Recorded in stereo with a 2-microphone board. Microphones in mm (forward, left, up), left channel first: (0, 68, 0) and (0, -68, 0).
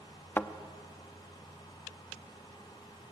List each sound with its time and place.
0.4 s a thud: 15° left (ahead or behind), 0.9 m